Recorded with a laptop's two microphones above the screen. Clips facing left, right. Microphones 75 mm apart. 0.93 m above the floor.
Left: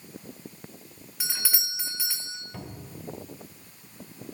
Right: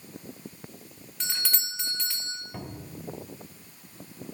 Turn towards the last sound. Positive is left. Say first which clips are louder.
# right 1 dB
turn(degrees=-25)  # may be behind; listen again after turning